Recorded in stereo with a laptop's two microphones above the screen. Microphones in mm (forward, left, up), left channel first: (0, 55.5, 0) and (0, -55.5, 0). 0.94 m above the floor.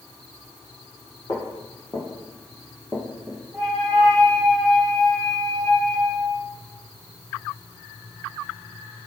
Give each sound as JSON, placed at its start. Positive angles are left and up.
{"t": 1.3, "sound": "footsteps", "side_deg": 40, "distance_m": 2.5}
{"t": 3.5, "sound": "a flute", "side_deg": 0, "distance_m": 1.7}